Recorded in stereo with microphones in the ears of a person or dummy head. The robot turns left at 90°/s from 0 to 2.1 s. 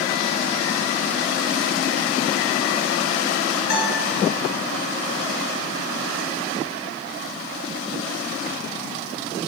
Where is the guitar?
55° left (ahead or behind), 2 m.